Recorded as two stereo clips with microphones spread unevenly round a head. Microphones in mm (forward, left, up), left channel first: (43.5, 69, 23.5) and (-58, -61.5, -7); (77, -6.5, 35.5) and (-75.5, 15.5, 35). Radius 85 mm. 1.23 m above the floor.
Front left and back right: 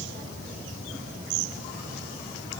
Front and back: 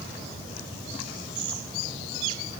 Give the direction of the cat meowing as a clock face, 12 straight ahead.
I don't hear a cat meowing.